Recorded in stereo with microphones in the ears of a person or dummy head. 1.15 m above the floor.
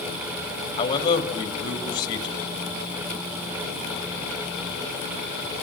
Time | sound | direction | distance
0.8 | a man speaking | 20° left (ahead or behind) | 2.5 m